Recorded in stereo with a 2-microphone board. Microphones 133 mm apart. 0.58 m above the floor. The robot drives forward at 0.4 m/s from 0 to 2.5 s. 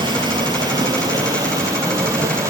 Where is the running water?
35° right (ahead or behind), 2 m; by 2.5 s 25° right (ahead or behind), 3 m.